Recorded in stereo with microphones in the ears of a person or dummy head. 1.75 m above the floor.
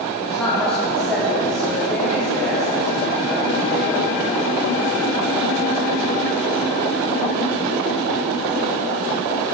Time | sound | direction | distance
0.2 | a woman speaking | 10° left (ahead or behind) | 4 m